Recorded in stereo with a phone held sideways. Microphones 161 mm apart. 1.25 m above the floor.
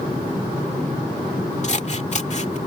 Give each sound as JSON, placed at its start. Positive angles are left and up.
{"t": 1.6, "sound": "scissors", "side_deg": 45}